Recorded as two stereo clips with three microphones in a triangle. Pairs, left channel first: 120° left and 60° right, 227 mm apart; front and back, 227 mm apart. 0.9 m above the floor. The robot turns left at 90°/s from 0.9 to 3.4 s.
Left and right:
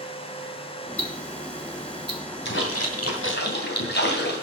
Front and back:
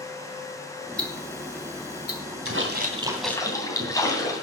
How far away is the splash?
About 2.5 m.